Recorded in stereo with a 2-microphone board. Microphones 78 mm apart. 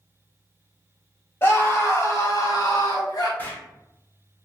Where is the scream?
35° left (ahead or behind), 1.6 m; by 3.3 s 55° left (ahead or behind), 1.1 m.